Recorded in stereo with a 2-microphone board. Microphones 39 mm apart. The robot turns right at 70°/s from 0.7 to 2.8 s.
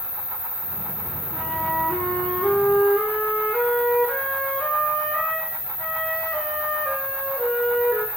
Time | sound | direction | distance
0.0 | an insect | 100° left | 2 m
1.3 | a flute | straight ahead | 0.7 m